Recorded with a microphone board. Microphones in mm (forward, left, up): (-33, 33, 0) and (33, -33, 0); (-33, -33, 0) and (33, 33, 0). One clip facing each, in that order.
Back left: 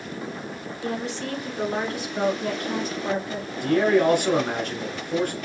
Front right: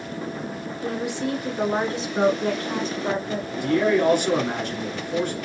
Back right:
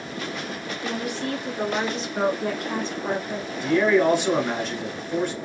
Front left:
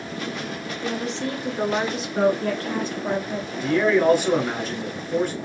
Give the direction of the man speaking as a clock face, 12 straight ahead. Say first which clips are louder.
Back left 1 dB, even; 8 o'clock.